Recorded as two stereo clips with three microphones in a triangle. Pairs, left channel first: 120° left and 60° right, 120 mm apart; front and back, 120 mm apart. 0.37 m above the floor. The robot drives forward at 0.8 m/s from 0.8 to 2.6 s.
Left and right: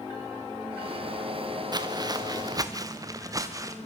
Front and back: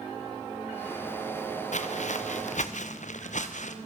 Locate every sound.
1.7 s footsteps: 5° right, 1.9 m; by 3.8 s 5° left, 3.5 m